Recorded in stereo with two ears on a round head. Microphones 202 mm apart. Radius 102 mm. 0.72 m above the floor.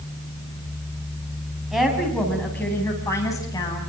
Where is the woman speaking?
Centre (ahead or behind), 5.5 m; by 3.8 s 20° left (ahead or behind), 6 m.